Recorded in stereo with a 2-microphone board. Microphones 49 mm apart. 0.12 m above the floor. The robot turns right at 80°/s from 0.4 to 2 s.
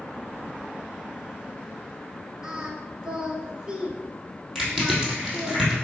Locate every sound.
2.4 s singing: 15° right (ahead or behind), 1.3 m
4.5 s crushing: centre (ahead or behind), 3 m